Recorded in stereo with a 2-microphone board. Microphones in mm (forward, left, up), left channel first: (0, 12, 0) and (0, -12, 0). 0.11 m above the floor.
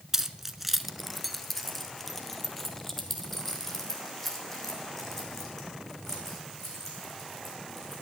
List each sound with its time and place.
0.1 s keys jangling: 20° right (ahead or behind), 0.8 m; by 8.0 s 15° left (ahead or behind), 6.5 m